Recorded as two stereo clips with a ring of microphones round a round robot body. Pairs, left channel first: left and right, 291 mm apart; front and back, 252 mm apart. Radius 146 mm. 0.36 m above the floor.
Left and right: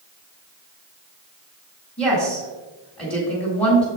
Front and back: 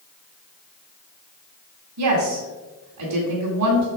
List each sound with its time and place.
2.0 s a woman speaking: straight behind, 2.5 m